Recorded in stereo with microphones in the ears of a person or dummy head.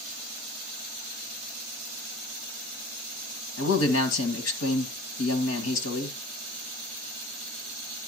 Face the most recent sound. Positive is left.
turn(degrees=80)